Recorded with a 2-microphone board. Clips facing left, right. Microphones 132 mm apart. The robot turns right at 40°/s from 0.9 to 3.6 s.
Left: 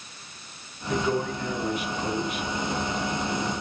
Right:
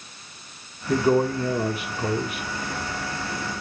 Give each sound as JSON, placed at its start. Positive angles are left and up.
{"t": 0.9, "sound": "a man speaking", "azimuth_deg": -125, "distance_m": 1.8}